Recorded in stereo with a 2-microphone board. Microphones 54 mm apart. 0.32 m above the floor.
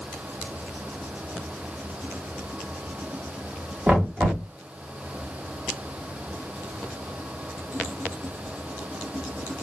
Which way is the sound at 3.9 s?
30° right (ahead or behind).